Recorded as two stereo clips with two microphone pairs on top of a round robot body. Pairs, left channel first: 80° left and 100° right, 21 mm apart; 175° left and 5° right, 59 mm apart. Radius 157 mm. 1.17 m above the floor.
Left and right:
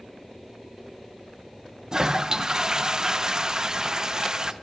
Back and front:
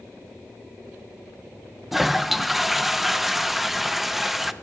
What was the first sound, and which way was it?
A toilet flushing, 60° right.